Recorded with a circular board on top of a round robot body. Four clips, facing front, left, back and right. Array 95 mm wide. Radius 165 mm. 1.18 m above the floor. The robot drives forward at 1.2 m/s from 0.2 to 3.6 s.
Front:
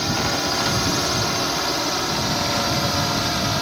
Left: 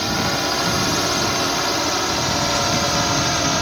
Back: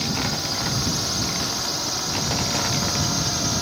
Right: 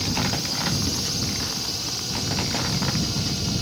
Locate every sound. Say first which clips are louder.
0.0 s a drone: left 6 dB, front 4 dB; 60° left; by 3.6 s 70° left